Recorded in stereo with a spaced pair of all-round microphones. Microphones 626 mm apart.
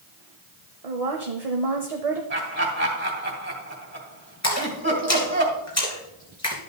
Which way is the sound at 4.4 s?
25° left (ahead or behind).